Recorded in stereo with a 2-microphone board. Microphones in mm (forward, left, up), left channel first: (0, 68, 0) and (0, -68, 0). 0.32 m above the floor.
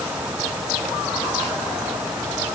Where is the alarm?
No alarm in this recording.